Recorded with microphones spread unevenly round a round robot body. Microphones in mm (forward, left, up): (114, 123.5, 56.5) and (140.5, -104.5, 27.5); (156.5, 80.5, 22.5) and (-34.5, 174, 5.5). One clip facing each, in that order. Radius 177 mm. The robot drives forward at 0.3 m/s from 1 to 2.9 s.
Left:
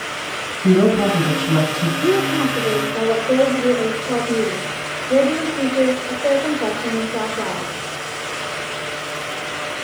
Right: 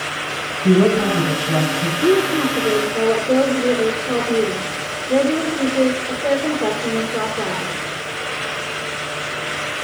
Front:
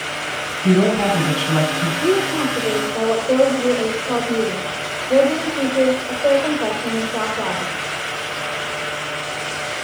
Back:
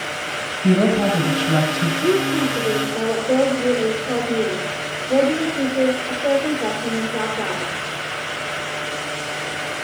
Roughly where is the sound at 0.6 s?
Behind left.